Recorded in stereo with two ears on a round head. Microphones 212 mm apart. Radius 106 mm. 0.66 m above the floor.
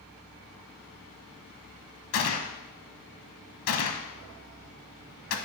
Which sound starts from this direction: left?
A gunshot, at 2.1 s.